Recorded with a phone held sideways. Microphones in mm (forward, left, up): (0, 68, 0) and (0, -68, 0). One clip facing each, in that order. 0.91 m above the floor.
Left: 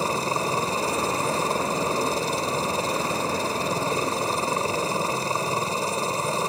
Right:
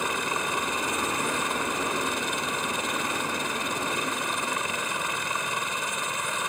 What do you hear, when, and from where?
0.0 s a helicopter: 30° left (ahead or behind)